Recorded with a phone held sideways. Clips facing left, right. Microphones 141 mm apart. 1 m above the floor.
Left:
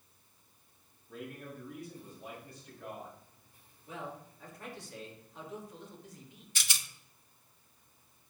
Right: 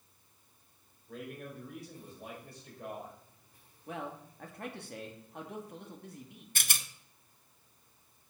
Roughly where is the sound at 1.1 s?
Right.